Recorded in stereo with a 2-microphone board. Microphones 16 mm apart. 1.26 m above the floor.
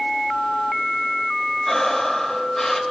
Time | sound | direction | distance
1.6 | breathing | 25° left (ahead or behind) | 1.4 m